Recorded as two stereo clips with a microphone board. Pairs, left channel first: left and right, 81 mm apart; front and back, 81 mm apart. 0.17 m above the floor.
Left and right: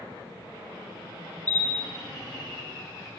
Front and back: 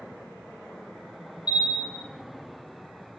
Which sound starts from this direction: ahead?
A bell, at 1.5 s.